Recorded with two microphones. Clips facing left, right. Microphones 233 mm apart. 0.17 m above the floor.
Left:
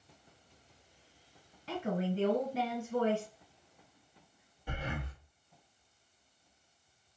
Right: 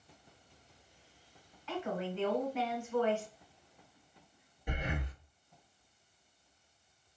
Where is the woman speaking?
35° left (ahead or behind), 1.5 m.